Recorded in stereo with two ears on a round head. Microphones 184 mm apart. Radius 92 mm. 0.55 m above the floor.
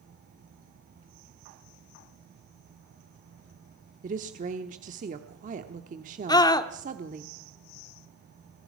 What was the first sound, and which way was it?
A woman speaking, 40° right (ahead or behind).